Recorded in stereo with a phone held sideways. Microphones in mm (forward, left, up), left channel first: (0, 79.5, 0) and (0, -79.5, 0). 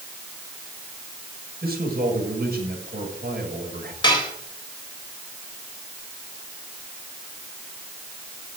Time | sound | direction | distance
1.6 | a man speaking | 75° right (ahead or behind) | 6.5 m
4.0 | dishes clattering | 30° left (ahead or behind) | 3.5 m